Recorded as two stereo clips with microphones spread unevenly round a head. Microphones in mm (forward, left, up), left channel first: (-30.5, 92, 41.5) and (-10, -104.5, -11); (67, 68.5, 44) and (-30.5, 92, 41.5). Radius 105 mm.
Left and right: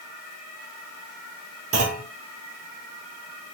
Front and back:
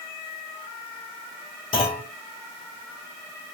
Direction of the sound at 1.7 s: 20° right.